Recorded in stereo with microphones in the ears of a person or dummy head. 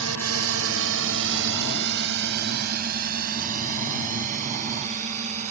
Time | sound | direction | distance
0.0 | a drone | 85° right | ?